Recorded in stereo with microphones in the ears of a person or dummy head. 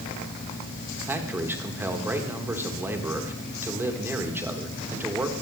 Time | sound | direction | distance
1.1 | a man speaking | 10° right (ahead or behind) | 1.6 m